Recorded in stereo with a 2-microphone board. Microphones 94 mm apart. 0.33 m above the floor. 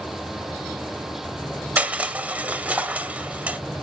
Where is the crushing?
15° right (ahead or behind), 0.7 m.